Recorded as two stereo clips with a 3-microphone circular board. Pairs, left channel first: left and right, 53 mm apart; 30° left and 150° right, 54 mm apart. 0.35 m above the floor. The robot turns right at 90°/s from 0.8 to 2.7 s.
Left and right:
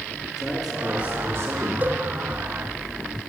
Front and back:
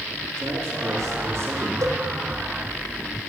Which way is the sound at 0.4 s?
175° right.